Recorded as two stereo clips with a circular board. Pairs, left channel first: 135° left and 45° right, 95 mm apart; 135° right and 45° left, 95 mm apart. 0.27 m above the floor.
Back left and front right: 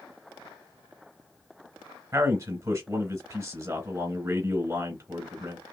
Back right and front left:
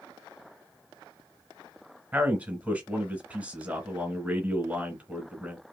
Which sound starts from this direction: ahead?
A man speaking, at 2.1 s.